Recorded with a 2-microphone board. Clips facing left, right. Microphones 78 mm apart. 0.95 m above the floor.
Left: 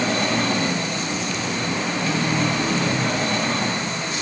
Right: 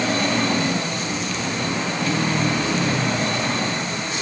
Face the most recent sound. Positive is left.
No sound to turn to.